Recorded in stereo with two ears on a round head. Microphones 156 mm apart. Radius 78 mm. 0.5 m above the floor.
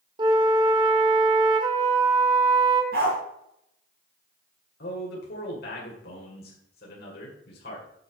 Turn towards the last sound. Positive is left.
turn(degrees=60)  # may be behind; listen again after turning